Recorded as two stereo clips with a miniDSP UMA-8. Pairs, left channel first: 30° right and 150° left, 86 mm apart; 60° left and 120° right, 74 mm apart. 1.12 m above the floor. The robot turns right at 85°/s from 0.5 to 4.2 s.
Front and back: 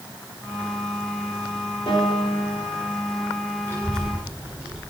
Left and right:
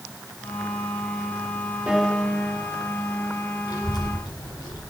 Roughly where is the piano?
Ahead right.